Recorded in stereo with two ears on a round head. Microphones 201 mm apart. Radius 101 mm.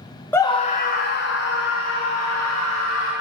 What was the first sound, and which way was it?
A scream, 10° left (ahead or behind).